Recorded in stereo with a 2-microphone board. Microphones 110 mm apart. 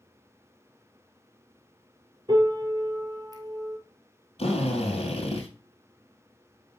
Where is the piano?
40° right (ahead or behind), 1.3 m.